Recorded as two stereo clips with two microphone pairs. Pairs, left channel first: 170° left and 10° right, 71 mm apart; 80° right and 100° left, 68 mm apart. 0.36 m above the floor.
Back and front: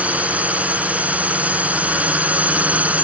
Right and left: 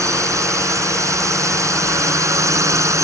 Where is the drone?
60° left.